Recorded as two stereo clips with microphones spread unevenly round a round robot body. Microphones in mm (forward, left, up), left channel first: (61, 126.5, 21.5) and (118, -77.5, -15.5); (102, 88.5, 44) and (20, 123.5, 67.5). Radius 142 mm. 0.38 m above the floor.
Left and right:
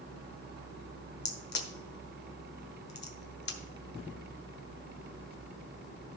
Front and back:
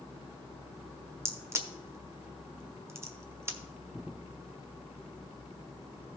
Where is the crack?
90° left, 1.4 m.